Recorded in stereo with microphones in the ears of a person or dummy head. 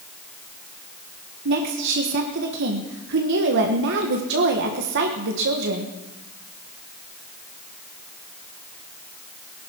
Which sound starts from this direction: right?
A woman speaking, at 1.4 s.